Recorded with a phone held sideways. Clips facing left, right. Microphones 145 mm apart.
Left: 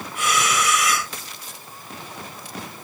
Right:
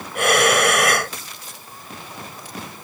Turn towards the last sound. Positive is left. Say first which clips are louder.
# right 6 dB
turn(degrees=-65)  # may be behind; listen again after turning